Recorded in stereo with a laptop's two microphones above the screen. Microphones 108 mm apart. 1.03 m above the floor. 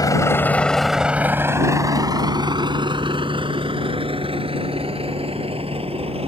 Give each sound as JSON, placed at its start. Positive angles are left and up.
{"t": 0.0, "sound": "a vehicle", "side_deg": 35}